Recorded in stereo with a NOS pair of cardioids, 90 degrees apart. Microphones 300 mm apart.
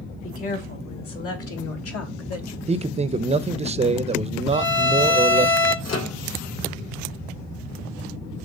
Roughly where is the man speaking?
Ahead.